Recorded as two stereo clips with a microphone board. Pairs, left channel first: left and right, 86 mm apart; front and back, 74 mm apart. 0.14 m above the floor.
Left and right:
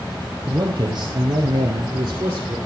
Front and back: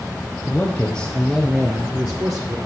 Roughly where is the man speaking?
Ahead right.